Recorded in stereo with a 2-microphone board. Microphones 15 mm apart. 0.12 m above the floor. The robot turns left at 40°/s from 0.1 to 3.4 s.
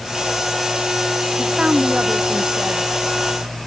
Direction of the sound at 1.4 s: 50° right.